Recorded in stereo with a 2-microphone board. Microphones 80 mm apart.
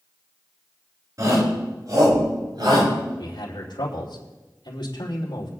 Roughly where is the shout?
Right.